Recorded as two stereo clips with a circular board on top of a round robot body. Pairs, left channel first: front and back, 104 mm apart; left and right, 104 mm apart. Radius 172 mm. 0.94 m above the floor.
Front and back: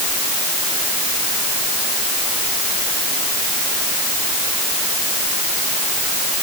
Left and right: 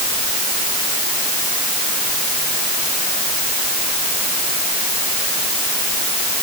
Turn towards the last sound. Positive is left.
No sound to turn to.